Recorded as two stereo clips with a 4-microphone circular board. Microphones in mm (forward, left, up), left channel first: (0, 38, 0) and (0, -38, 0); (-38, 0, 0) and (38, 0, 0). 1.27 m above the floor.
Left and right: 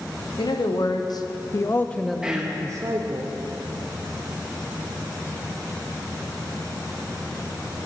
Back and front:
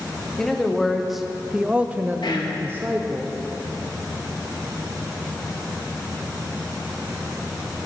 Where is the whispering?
170° right, 1.8 m.